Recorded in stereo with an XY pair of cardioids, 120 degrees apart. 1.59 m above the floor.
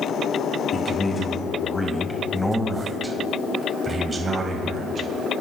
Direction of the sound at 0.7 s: 30° left.